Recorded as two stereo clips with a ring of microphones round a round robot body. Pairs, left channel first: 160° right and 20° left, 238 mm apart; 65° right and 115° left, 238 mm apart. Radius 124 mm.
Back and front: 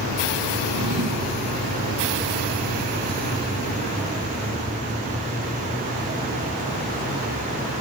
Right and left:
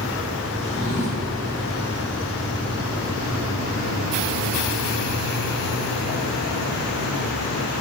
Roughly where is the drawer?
Ahead.